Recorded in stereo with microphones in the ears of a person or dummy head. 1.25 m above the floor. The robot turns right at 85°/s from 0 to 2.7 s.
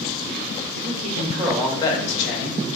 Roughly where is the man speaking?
Ahead right.